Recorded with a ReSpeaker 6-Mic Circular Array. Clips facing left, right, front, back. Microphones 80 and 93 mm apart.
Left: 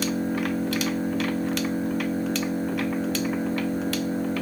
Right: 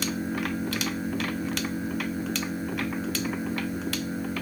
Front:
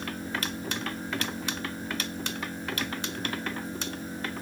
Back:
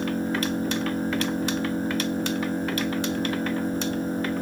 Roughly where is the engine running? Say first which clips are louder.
Left 4 dB, back 9 dB; behind left.